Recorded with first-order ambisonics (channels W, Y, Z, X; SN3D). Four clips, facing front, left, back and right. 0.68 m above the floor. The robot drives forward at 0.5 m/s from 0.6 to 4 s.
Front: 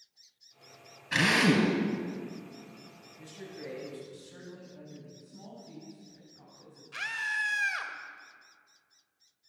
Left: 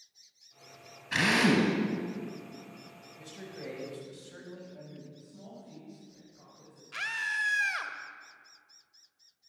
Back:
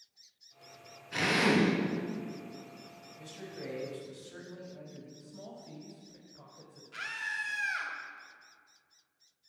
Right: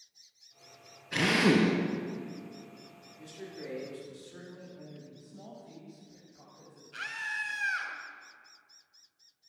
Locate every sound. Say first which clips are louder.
1.1 s a drill: even, front 3 dB; 35° left, 3 m; by 1.7 s 40° left, 3 m
3.2 s a man speaking: right 1 dB, even; 115° left, 4 m; by 5.1 s 120° left, 4.5 m
5.2 s a woman speaking: even, back 1 dB; straight behind, 3.5 m
6.9 s a scream: left 4 dB, front 4 dB; 70° left, 1.7 m